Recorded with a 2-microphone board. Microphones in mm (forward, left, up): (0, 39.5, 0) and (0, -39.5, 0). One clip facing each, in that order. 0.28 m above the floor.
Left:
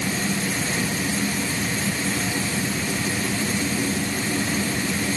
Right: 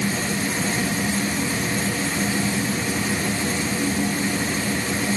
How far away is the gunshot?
No gunshot in this recording.